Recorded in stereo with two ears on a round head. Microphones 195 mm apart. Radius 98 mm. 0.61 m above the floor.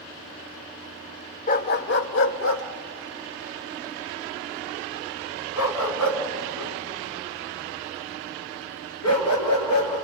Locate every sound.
1.5 s a dog barking: 40° left (ahead or behind), 0.6 m; by 10.0 s 85° left, 4.5 m